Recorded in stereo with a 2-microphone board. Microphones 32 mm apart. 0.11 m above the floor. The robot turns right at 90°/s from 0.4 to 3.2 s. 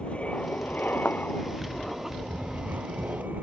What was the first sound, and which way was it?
An aircraft, 40° left.